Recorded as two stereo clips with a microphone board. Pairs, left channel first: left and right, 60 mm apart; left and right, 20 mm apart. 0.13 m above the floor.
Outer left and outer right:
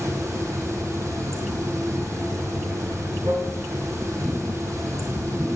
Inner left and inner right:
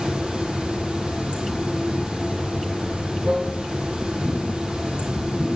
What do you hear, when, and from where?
0.0 s running water: 50° right (ahead or behind), 1.9 m